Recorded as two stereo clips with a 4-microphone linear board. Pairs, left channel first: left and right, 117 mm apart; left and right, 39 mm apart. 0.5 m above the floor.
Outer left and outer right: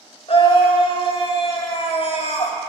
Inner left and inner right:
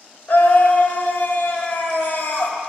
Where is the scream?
55° left (ahead or behind), 2.0 m.